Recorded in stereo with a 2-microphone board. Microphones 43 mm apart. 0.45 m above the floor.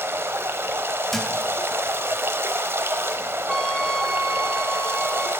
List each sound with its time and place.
0.0 s running water: 70° right (ahead or behind), 0.9 m
1.1 s a thud: 5° left (ahead or behind), 1.3 m
3.5 s a trumpet: 5° left (ahead or behind), 1.1 m